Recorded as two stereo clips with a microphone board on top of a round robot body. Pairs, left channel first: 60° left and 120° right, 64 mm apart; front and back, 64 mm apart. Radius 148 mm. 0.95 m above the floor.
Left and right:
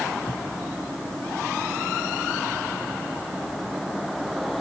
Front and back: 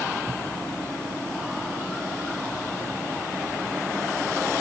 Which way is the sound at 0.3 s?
110° left.